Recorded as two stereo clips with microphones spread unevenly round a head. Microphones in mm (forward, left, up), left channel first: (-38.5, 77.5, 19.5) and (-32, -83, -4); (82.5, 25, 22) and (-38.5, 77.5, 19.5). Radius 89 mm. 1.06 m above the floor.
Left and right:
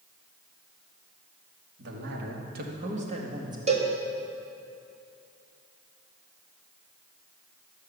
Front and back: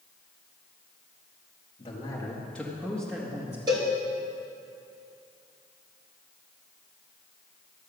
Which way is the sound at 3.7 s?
140° right.